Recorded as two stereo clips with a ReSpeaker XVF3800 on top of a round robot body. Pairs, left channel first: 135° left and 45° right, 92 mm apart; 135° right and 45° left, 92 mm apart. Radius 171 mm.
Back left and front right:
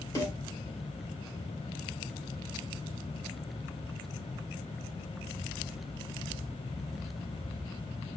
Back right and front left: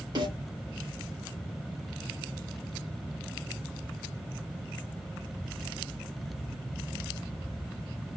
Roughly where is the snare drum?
Left.